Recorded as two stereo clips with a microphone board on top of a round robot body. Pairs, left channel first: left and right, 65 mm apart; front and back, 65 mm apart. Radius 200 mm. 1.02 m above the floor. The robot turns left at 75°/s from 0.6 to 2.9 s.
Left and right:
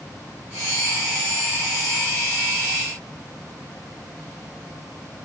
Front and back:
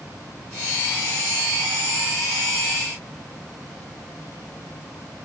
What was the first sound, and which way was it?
Only background noise.